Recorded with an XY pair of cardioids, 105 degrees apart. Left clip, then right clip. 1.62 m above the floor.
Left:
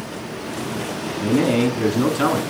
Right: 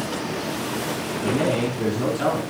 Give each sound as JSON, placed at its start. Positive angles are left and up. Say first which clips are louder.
{"t": 1.2, "sound": "a man speaking", "louder": "left 4 dB", "azimuth_deg": 65, "distance_m": 3.0}